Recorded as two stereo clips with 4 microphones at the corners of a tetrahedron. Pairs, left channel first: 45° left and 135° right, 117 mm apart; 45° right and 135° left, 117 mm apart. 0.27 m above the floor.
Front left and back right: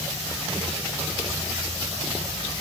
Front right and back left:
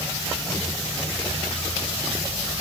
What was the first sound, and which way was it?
Only background noise.